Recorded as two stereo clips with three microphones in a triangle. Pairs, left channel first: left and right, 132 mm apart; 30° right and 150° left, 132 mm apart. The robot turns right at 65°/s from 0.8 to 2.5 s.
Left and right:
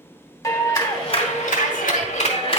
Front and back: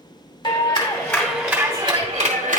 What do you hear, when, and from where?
0.4 s a clap: 25° left, 2.5 m; by 2.6 s 135° left, 2.5 m